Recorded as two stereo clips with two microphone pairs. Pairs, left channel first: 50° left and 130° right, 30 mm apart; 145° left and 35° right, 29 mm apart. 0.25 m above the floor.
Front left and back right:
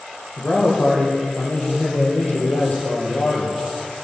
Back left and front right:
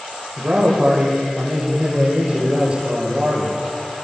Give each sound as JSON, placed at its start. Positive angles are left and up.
{"t": 0.4, "sound": "a man speaking", "azimuth_deg": 20, "distance_m": 9.0}